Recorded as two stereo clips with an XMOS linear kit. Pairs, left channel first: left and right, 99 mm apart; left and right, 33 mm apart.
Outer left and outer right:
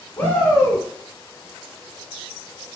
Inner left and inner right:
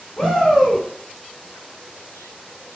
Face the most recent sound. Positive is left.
turn(degrees=20)  # may be behind; listen again after turning